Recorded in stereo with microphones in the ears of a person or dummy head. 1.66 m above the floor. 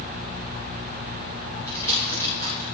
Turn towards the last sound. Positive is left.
turn(degrees=20)  # may be behind; listen again after turning